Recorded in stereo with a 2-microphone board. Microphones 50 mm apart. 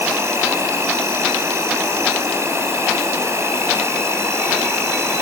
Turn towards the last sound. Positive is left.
turn(degrees=-65)  # may be behind; listen again after turning